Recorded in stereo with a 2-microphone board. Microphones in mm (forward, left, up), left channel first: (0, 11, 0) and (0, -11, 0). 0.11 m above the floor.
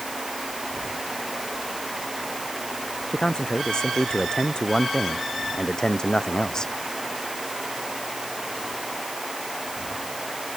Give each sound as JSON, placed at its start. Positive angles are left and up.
{"t": 3.1, "sound": "a man speaking", "side_deg": 40}